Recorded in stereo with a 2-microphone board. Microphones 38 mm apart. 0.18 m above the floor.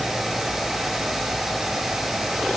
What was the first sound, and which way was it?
Only background noise.